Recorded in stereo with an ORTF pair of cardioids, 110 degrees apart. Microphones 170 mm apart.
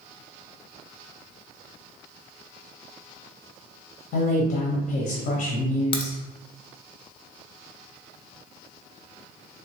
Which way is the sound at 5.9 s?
30° left.